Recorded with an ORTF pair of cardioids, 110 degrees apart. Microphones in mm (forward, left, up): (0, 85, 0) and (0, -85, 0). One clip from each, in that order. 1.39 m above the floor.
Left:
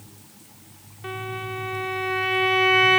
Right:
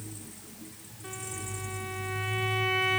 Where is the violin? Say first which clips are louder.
Left 9 dB; 60° left.